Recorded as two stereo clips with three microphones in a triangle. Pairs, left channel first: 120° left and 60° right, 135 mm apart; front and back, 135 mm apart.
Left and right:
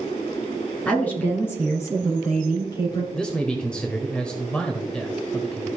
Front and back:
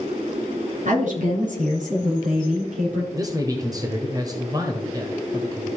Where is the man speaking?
165° right, 1.1 m.